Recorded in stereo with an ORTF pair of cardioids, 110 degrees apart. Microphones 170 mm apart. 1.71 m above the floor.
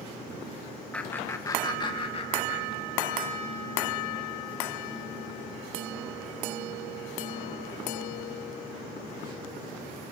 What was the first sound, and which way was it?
Laughter, 5° left.